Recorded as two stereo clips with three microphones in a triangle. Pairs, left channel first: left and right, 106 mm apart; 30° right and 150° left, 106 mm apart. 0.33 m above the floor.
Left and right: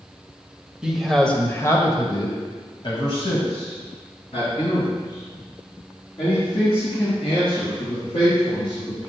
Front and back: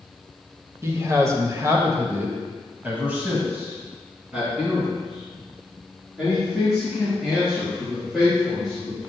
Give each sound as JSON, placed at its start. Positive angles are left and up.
{"t": 0.8, "sound": "a man speaking", "azimuth_deg": -170, "distance_m": 1.0}